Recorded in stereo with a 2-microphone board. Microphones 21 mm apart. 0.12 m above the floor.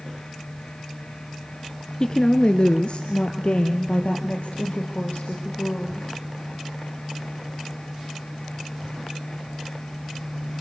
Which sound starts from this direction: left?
A woman speaking, at 2.0 s.